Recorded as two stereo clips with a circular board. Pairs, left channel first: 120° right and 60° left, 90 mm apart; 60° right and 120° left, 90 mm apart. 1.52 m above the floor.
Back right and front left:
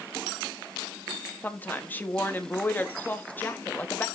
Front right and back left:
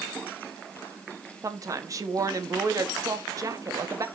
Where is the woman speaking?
170° left, 1.3 m.